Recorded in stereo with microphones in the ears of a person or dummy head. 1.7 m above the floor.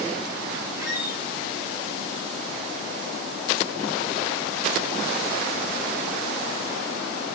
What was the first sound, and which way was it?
A squeak, 20° right (ahead or behind).